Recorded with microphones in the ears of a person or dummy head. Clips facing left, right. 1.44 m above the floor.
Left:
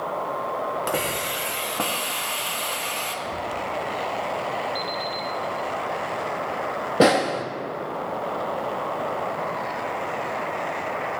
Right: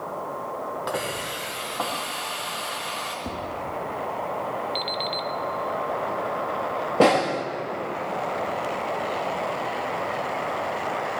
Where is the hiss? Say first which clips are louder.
Left 3 dB; 30° left (ahead or behind), 1.4 m.